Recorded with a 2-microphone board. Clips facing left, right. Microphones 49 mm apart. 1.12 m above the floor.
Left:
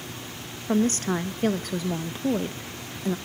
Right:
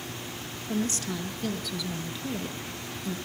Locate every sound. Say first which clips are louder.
0.7 s a woman speaking: left 7 dB; 45° left (ahead or behind), 1.1 m